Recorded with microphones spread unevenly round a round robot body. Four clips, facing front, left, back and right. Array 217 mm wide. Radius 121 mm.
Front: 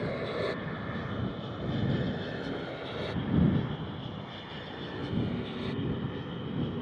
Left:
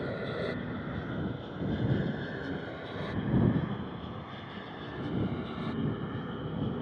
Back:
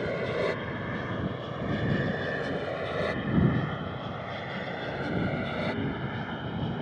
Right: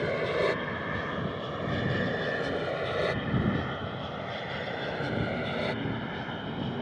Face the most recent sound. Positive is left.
turn(degrees=-130)